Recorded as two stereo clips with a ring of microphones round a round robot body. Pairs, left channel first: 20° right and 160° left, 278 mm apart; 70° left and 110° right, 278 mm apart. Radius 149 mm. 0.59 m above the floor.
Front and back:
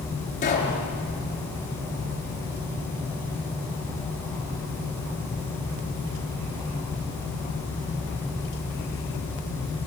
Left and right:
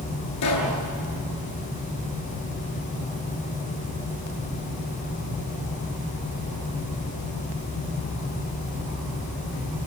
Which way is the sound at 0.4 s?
40° left.